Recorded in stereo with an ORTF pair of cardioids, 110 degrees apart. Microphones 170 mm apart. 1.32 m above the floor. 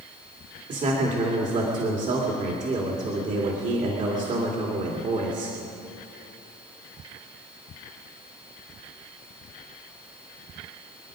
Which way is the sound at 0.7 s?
50° right.